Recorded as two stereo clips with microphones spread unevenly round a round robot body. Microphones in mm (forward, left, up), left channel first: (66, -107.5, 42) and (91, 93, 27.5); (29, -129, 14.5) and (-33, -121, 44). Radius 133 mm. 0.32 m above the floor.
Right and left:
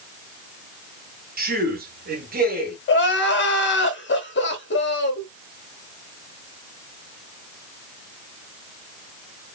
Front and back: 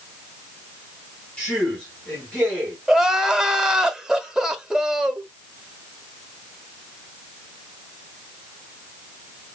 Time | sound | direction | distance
1.4 | a man speaking | 50° left | 3 m
2.9 | crying | 90° right | 1.8 m